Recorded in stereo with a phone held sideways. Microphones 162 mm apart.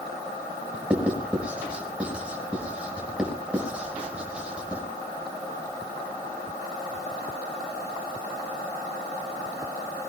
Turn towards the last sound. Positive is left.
turn(degrees=-5)  # may be behind; listen again after turning